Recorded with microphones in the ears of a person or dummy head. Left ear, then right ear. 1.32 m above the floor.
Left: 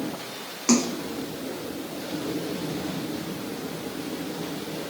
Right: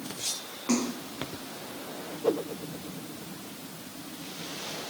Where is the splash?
75° left (ahead or behind), 1.0 m.